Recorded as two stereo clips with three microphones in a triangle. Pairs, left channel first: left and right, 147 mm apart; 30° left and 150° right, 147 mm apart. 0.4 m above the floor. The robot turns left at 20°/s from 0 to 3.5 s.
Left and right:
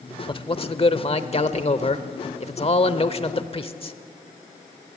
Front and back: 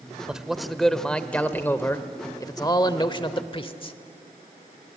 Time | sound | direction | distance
0.3 | a man speaking | 125° left | 1.0 m